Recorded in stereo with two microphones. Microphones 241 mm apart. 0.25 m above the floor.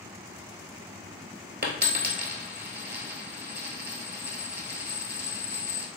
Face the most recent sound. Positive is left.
turn(degrees=-45)  # may be behind; listen again after turning